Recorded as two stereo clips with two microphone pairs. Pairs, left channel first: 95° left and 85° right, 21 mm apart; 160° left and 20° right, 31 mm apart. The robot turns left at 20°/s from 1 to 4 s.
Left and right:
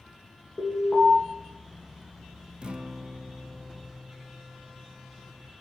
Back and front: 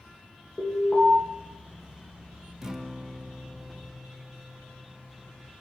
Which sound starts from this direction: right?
A guitar, at 2.6 s.